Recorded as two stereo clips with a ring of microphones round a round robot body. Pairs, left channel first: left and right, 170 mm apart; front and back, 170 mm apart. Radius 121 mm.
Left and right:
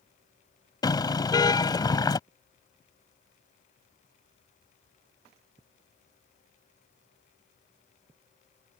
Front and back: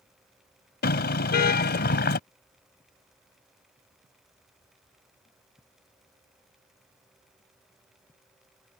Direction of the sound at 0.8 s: 25° left.